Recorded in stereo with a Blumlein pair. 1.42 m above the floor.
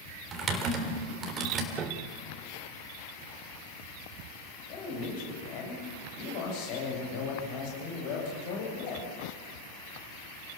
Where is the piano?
30° right, 1.3 m.